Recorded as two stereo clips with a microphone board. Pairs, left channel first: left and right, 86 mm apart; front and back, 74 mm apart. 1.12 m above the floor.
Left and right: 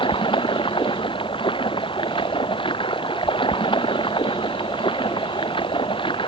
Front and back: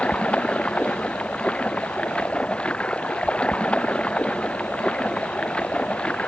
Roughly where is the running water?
Left.